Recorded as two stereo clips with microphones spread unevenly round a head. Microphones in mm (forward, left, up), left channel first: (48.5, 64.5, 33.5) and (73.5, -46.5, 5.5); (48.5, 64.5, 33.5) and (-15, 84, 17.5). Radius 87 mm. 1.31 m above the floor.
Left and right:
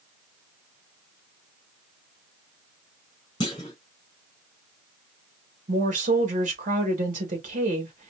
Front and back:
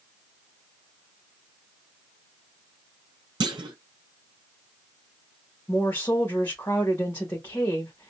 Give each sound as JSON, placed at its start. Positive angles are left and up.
{"t": 3.4, "sound": "a clunk", "azimuth_deg": 165, "distance_m": 0.7}
{"t": 5.7, "sound": "a woman speaking", "azimuth_deg": -90, "distance_m": 1.6}